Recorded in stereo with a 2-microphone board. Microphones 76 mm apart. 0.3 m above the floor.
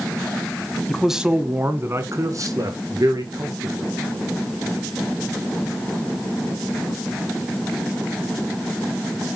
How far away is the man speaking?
About 1.5 m.